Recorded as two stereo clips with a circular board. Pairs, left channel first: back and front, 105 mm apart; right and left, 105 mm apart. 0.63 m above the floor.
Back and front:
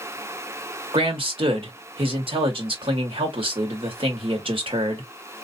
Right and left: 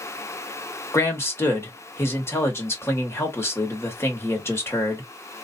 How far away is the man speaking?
About 1.8 m.